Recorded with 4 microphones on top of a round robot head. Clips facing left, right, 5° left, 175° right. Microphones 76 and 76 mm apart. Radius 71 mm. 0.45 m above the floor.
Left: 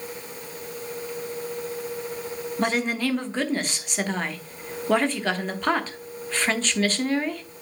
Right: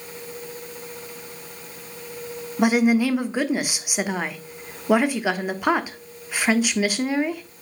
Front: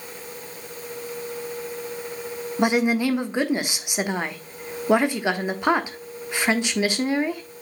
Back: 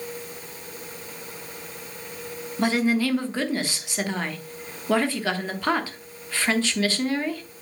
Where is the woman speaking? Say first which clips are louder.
Right 7 dB, front 2 dB; 35° right, 1.1 m.